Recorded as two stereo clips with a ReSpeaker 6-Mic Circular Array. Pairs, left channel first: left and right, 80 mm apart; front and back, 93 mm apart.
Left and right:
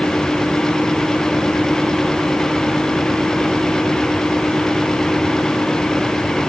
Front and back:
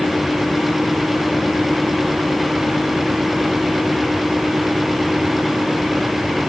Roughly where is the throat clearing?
I don't hear throat clearing.